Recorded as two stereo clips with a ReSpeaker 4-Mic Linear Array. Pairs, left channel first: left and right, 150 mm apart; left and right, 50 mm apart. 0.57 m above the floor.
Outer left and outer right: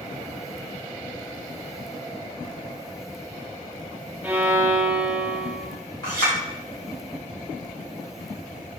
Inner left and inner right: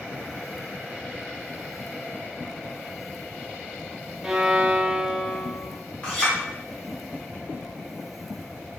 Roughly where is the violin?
Centre.